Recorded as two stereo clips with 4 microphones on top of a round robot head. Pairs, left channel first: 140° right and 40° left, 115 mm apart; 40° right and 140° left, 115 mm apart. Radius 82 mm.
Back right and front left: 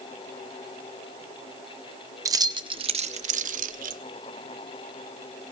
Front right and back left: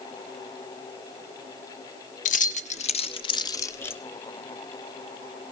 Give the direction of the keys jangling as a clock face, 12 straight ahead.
1 o'clock.